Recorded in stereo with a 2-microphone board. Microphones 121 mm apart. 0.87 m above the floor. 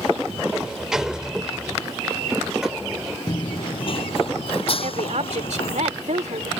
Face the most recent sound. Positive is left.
turn(degrees=-75)  # may be behind; listen again after turning